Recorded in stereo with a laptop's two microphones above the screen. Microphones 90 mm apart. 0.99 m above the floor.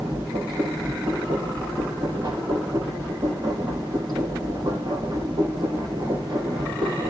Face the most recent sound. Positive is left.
turn(degrees=-60)  # may be behind; listen again after turning